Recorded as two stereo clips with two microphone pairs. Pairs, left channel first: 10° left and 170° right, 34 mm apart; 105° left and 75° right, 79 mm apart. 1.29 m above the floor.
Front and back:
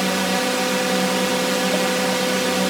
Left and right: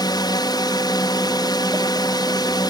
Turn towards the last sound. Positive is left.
turn(degrees=105)